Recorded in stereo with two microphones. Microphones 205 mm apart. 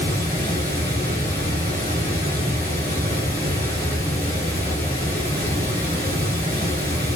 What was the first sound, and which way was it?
Running water, 45° right (ahead or behind).